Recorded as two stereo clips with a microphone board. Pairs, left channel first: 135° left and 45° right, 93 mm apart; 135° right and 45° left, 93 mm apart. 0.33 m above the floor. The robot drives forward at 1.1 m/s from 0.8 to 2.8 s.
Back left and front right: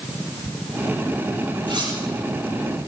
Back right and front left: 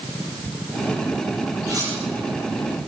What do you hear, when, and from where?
1.7 s cutlery clinking: 5° right, 5 m